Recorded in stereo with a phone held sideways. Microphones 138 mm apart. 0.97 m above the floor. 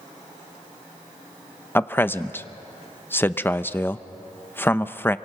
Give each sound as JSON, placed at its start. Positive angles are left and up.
{"t": 1.8, "sound": "a man speaking", "side_deg": 15, "distance_m": 0.6}